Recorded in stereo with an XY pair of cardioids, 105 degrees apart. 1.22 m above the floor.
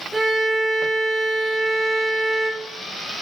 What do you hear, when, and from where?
0.1 s a violin: 10° right, 3.5 m